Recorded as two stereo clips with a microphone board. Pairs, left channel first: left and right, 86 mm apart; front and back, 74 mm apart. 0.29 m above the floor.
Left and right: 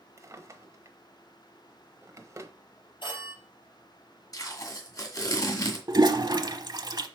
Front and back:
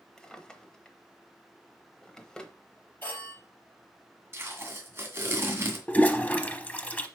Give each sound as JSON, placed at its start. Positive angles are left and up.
{"t": 0.2, "sound": "a drawer", "azimuth_deg": -75, "distance_m": 0.9}
{"t": 3.0, "sound": "a phone ringing", "azimuth_deg": 65, "distance_m": 4.0}
{"t": 4.3, "sound": "tape being pulled", "azimuth_deg": 130, "distance_m": 2.0}
{"t": 5.9, "sound": "a toilet flushing", "azimuth_deg": -70, "distance_m": 0.7}